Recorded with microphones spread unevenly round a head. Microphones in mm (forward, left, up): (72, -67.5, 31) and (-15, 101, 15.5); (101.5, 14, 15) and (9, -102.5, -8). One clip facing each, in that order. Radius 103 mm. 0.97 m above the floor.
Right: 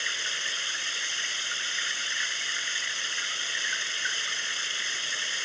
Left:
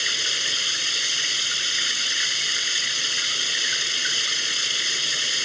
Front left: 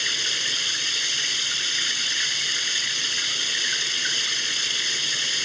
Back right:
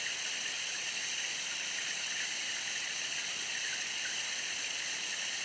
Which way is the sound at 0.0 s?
75° left.